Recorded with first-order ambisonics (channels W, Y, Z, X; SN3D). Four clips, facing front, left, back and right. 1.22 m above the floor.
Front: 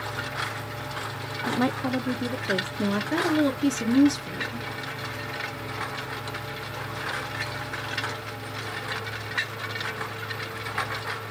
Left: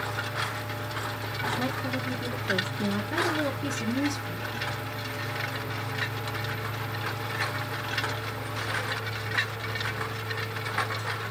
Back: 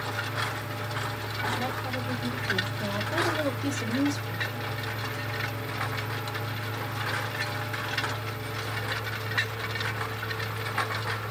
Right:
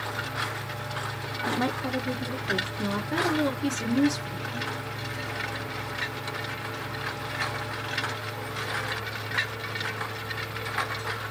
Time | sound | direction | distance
1.5 | a woman speaking | 40° right | 0.6 m
2.8 | a woman speaking | 10° right | 2.5 m